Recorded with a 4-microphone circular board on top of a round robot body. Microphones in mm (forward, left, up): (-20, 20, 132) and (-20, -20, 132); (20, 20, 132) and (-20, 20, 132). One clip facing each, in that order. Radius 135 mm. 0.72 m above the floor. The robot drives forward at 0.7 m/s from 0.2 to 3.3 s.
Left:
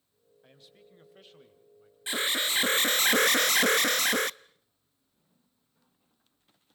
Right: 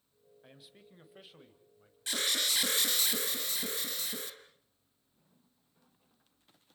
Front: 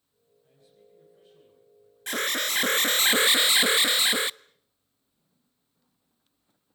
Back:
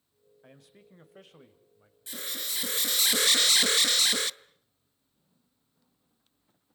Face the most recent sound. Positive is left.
turn(degrees=65)